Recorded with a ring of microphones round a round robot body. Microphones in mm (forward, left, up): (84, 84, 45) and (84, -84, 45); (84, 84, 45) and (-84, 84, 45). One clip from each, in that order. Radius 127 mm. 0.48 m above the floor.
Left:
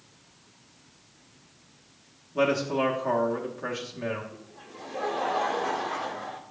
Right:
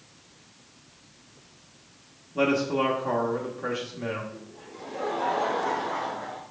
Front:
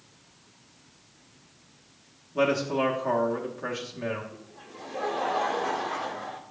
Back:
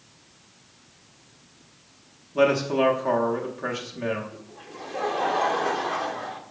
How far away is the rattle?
No rattle in this recording.